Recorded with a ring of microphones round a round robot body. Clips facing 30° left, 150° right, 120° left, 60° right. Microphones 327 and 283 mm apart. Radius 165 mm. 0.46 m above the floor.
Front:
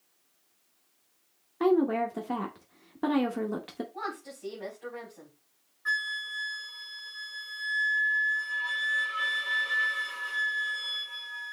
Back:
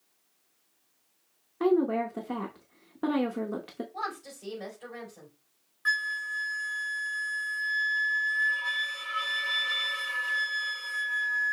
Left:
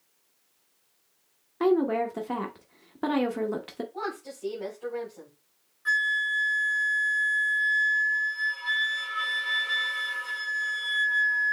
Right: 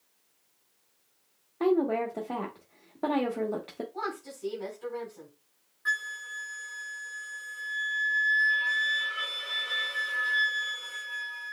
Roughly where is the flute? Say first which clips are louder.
Back 2 dB, left 6 dB; behind right.